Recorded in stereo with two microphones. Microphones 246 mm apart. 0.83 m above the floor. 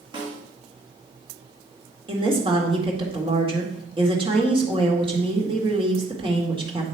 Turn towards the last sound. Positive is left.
turn(degrees=-20)  # may be behind; listen again after turning